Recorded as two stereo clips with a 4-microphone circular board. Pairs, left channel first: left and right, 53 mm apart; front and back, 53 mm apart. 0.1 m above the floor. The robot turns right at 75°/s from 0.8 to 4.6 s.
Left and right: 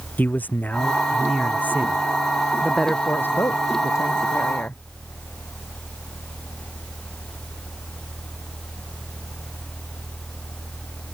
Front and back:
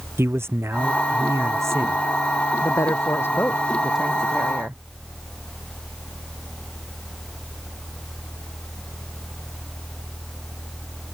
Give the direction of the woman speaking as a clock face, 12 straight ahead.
12 o'clock.